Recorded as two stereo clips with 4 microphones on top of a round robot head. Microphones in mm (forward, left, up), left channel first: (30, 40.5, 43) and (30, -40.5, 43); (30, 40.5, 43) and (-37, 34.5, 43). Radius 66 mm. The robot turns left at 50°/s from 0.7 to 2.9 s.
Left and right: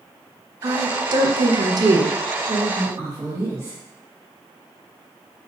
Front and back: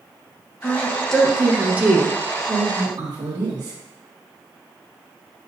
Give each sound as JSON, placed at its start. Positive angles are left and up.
{"t": 0.6, "sound": "a woman speaking", "azimuth_deg": -55, "distance_m": 0.8}
{"t": 2.5, "sound": "a woman speaking", "azimuth_deg": -130, "distance_m": 1.4}